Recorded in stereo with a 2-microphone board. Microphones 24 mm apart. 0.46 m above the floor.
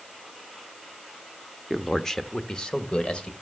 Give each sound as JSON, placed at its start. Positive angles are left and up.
{"t": 1.7, "sound": "a man speaking", "side_deg": 5, "distance_m": 0.7}